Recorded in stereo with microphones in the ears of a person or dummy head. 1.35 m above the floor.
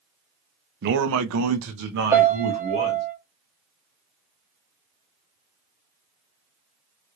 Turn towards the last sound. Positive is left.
turn(degrees=-10)  # may be behind; listen again after turning